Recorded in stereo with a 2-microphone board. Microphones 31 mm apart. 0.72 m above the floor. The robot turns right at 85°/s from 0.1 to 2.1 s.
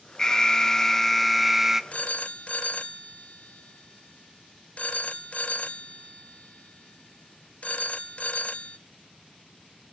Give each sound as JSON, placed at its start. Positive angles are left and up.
{"t": 0.2, "sound": "an alarm", "side_deg": 20, "distance_m": 0.5}
{"t": 1.9, "sound": "a phone ringing", "side_deg": 45, "distance_m": 0.5}